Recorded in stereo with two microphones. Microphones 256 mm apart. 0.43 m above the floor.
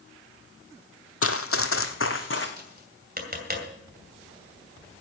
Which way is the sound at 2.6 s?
40° right (ahead or behind).